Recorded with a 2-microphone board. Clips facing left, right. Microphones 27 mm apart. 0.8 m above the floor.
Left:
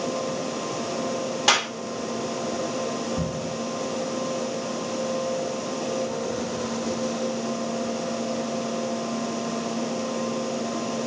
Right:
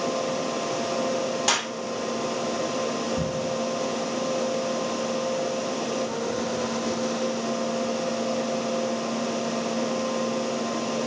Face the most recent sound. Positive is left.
turn(degrees=15)  # may be behind; listen again after turning